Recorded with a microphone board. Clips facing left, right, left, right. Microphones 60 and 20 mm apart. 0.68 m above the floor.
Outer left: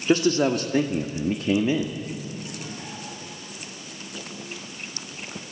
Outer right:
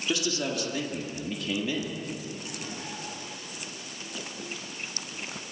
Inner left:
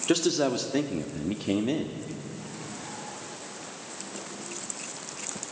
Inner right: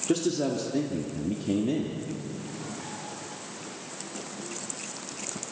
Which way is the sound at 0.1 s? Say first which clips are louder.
Outer left 10 dB, inner left 2 dB; 40° left (ahead or behind).